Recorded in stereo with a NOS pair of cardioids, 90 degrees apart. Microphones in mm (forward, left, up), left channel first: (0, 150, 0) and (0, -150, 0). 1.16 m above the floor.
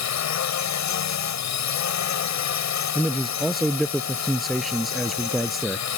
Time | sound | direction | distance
0.0 | a drone | 65° left | ?
3.0 | a man speaking | straight ahead | ?